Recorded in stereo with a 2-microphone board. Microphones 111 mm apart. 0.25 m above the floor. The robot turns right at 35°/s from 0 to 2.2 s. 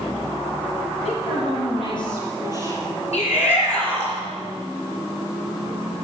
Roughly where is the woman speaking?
Left.